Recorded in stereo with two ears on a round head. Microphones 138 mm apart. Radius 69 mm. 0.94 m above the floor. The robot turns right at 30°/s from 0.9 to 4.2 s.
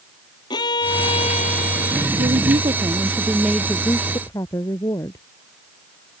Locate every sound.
0.5 s a violin: 25° left; by 2.1 s 65° left
2.2 s a woman speaking: 40° right; by 5.2 s 20° left